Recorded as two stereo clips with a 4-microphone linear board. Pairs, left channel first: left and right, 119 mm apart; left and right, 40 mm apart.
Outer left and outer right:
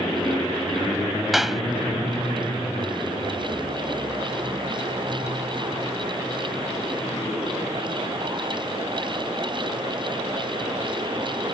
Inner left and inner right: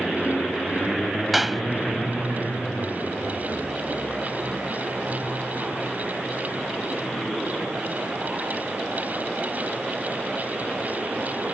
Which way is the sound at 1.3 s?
Centre (ahead or behind).